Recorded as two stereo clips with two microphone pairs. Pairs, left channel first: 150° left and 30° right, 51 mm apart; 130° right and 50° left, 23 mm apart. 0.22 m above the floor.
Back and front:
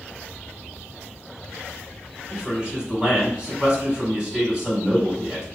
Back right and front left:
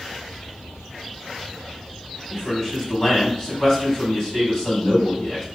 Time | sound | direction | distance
2.3 | a man speaking | 90° right | 2.0 m